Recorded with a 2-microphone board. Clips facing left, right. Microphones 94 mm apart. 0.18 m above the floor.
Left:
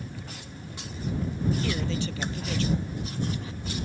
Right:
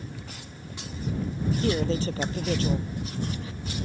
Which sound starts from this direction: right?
A man speaking, at 1.6 s.